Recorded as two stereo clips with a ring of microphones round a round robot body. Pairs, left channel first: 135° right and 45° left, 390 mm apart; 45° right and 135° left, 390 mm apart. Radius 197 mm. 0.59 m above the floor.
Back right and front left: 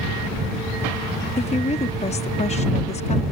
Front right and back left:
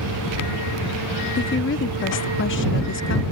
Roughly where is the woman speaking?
Right.